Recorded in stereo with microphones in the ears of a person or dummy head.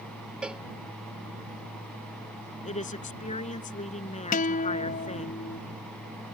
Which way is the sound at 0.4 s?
5° right (ahead or behind).